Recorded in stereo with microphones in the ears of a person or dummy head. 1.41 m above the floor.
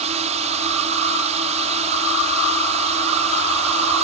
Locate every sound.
0.0 s a drone: 35° right (ahead or behind)